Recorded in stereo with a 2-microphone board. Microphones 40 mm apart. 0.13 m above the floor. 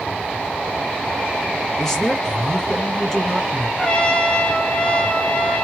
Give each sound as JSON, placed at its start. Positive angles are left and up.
{"t": 1.8, "sound": "a man speaking", "side_deg": 10, "distance_m": 1.7}
{"t": 3.8, "sound": "a trumpet", "side_deg": 30, "distance_m": 0.6}